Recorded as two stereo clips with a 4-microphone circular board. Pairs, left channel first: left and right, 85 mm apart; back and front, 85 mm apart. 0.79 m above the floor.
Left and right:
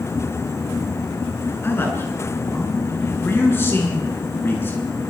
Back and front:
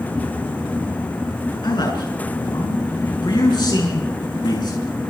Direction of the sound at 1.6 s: 150° left.